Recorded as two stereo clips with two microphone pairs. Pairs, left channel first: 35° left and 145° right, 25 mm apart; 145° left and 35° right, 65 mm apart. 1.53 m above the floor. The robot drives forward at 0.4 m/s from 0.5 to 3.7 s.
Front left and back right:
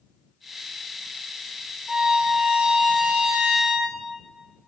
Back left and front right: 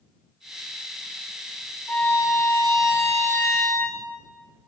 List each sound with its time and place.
1.9 s a violin: 160° left, 1.5 m; by 4.0 s 170° left, 2 m